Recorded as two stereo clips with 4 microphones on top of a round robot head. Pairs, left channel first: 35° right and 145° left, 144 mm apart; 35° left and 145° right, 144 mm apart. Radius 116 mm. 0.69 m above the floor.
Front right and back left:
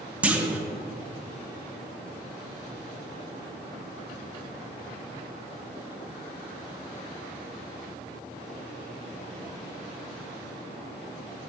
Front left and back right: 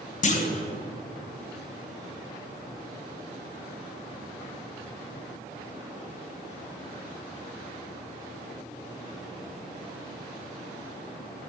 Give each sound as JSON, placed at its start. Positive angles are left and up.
{"t": 0.2, "sound": "a clunk", "azimuth_deg": 65, "distance_m": 0.7}